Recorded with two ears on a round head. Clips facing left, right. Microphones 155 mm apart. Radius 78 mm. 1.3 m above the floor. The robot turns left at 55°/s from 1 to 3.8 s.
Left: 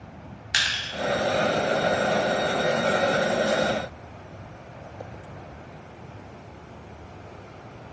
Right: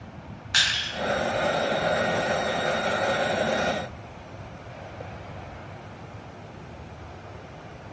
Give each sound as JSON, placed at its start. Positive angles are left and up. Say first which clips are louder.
{"t": 0.5, "sound": "crushing", "louder": "right 1 dB", "side_deg": 20, "distance_m": 0.6}